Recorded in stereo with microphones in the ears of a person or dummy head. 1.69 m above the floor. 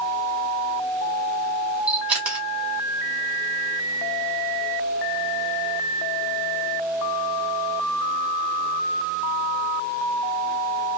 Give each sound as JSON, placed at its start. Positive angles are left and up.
{"t": 1.9, "sound": "a camera shutter", "side_deg": -10, "distance_m": 0.9}